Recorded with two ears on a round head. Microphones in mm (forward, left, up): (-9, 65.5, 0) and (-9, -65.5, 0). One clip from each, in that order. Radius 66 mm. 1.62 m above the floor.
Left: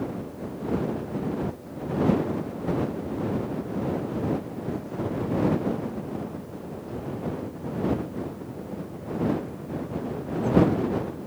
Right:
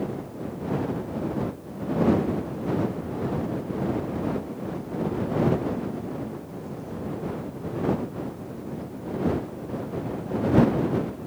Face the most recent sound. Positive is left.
No sound to turn to.